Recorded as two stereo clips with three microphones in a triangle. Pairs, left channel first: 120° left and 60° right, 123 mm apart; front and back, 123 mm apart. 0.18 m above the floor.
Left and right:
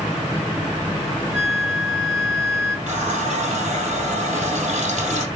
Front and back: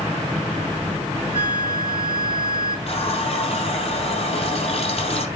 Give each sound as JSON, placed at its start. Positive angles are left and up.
{"t": 1.3, "sound": "a flute", "azimuth_deg": -140, "distance_m": 2.0}
{"t": 2.9, "sound": "a running tap", "azimuth_deg": -35, "distance_m": 3.5}